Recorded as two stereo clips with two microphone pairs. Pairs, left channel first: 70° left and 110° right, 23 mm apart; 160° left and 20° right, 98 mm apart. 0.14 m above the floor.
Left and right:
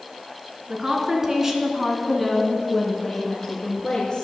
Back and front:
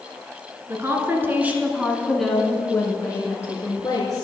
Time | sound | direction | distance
0.7 | a woman speaking | 65° right | 1.6 m